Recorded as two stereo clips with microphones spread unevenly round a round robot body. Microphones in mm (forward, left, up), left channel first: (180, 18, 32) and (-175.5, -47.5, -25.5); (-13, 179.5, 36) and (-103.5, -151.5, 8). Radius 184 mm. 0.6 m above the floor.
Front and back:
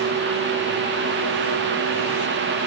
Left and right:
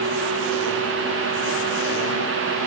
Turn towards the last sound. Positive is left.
No sound to turn to.